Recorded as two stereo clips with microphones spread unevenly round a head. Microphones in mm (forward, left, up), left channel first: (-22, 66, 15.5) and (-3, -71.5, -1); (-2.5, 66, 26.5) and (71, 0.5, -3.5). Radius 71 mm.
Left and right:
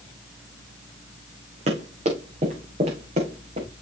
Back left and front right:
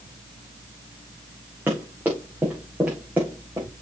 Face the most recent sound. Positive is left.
turn(degrees=-125)